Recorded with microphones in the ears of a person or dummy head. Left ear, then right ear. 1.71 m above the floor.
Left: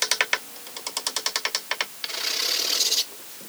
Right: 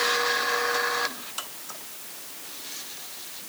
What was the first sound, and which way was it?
Only background noise.